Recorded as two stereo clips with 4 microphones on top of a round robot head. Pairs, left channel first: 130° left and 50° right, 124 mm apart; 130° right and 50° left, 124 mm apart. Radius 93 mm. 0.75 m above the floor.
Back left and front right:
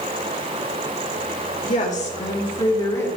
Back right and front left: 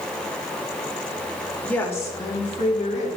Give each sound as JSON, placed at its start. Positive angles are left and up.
{"t": 1.6, "sound": "a woman speaking", "azimuth_deg": 150, "distance_m": 2.5}